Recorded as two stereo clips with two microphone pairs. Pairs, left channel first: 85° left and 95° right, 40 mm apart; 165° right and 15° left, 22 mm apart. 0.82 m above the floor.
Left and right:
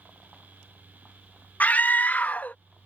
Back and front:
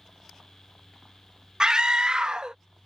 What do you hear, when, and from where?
1.6 s a scream: 50° left